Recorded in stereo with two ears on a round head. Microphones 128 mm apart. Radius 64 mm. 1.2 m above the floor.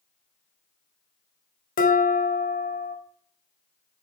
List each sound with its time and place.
1.8 s dishes clattering: 70° left (ahead or behind), 1.5 m